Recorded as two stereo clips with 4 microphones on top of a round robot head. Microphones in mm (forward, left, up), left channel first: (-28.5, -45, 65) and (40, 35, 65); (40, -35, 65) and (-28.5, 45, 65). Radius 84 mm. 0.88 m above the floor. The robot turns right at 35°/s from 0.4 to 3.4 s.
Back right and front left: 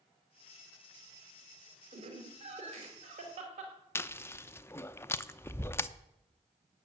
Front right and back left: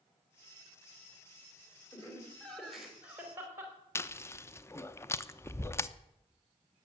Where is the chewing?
90° right, 0.8 m.